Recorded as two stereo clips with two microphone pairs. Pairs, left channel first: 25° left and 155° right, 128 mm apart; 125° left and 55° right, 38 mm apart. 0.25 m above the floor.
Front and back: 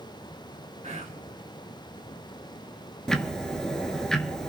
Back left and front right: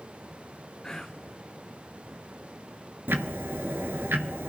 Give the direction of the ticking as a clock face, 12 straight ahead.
2 o'clock.